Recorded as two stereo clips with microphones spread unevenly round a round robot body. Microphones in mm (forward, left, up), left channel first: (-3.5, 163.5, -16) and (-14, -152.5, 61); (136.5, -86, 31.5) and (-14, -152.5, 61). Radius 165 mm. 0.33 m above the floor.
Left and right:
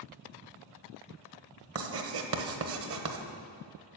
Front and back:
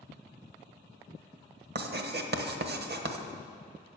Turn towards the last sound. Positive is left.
turn(degrees=-145)